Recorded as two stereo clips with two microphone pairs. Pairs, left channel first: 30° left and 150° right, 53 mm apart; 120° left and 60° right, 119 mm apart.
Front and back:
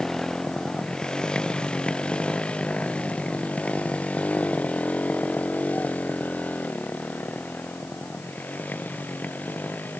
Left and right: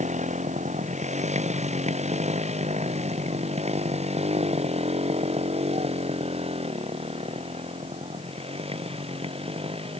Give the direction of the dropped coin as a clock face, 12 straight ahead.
I don't hear a dropped coin.